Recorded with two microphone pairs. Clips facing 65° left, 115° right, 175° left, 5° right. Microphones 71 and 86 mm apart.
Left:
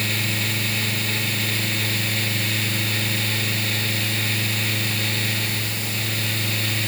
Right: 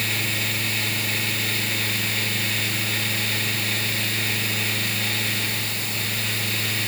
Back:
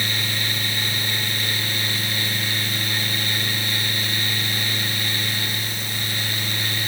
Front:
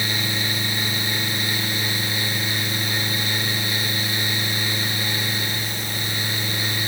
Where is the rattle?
No rattle in this recording.